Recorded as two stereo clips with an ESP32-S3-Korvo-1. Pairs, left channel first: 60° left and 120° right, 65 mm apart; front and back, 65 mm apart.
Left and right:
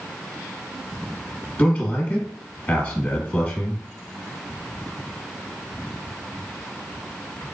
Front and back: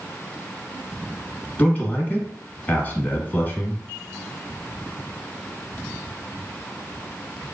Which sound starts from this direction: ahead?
A man speaking, at 1.6 s.